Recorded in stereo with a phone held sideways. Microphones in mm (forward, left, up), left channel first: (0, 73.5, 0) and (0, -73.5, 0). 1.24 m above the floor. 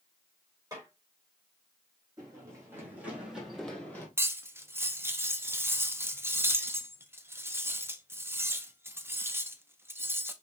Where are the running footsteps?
25° right (ahead or behind), 4 m; by 4.1 s 15° left (ahead or behind), 2.5 m.